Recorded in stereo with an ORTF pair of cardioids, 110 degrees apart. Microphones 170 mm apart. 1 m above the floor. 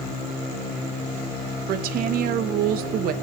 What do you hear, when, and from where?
1.7 s a woman speaking: 65° right, 0.6 m